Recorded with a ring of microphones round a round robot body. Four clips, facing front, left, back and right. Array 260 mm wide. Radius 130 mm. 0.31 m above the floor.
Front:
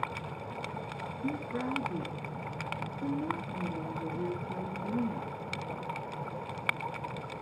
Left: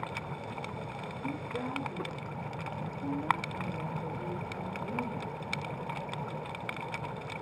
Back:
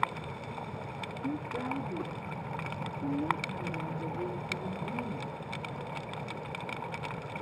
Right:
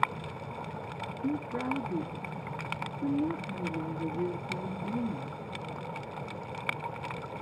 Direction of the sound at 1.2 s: 40° right.